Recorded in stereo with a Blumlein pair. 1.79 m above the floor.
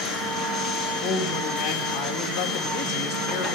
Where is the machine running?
15° left, 1.4 m.